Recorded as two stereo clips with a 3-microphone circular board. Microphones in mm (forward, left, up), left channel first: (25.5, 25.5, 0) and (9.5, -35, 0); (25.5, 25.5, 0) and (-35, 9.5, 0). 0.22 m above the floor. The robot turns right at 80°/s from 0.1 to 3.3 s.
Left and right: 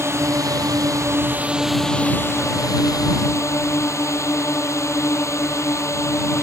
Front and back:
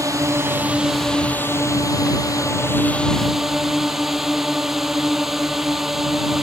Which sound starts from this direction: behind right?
A drone, at 0.0 s.